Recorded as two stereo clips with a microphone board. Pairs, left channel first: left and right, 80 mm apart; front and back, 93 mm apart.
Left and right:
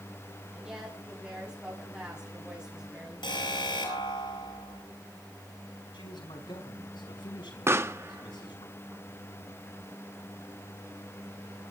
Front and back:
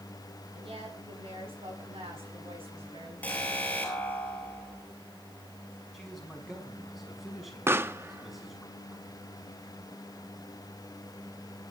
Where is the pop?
125° right, 0.9 m.